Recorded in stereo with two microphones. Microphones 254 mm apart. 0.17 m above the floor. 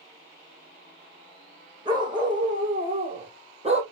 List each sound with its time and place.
1.9 s a dog barking: 15° right (ahead or behind), 5 m; by 3.8 s 25° right (ahead or behind), 2.5 m